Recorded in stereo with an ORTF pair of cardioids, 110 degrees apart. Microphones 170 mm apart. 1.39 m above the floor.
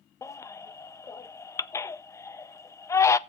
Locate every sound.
0.2 s a baby crying: 15° left, 0.5 m